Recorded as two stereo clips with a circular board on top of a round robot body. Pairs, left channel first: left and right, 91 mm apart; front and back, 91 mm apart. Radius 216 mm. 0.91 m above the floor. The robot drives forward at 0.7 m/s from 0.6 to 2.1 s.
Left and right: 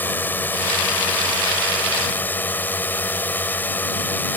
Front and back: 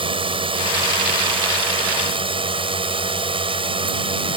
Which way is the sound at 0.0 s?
160° left.